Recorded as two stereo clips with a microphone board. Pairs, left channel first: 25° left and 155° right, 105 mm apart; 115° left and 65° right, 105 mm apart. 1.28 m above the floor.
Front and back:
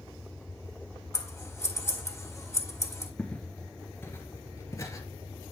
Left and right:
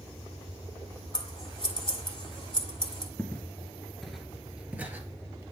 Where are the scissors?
85° left, 1.9 m.